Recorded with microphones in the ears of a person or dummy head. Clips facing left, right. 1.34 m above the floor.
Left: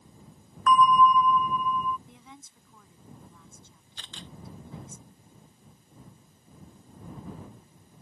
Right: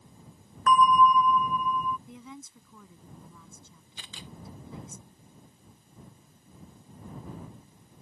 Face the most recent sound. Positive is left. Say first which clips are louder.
# even
turn(degrees=-5)  # may be behind; listen again after turning